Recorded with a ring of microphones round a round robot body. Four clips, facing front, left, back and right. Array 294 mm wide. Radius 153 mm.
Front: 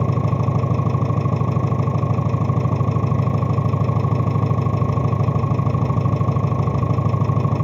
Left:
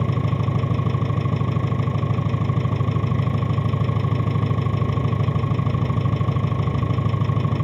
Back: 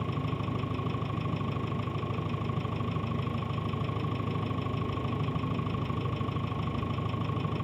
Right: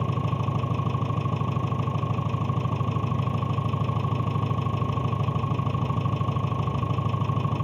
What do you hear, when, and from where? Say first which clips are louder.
0.0 s an engine running: left 4 dB, front 12 dB; 15° left